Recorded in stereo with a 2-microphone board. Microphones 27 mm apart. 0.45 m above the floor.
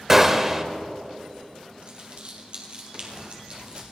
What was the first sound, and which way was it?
A gunshot, 15° right (ahead or behind).